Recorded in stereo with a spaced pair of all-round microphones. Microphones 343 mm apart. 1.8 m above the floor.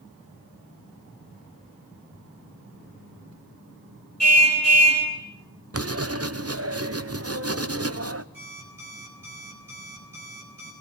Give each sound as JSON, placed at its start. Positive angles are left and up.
{"t": 4.2, "sound": "a car horn", "side_deg": -45, "distance_m": 5.5}
{"t": 5.7, "sound": "writing", "side_deg": -45, "distance_m": 0.9}
{"t": 8.3, "sound": "an alarm clock", "side_deg": -80, "distance_m": 7.0}